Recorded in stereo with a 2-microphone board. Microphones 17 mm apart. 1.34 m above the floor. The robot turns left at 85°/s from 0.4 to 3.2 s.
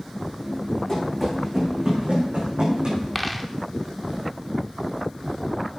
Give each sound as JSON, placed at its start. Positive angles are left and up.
{"t": 0.9, "sound": "running footsteps", "side_deg": 35, "distance_m": 7.0}
{"t": 3.1, "sound": "a dropped coin", "side_deg": 5, "distance_m": 1.0}